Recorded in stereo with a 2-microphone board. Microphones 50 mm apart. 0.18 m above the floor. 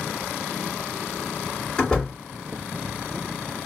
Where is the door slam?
15° left (ahead or behind), 2 m.